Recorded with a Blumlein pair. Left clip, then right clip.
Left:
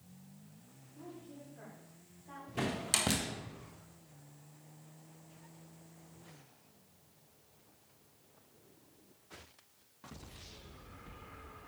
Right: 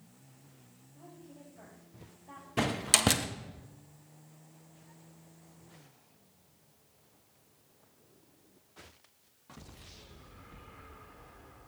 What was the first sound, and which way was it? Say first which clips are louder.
A woman speaking: left 2 dB; 5° right.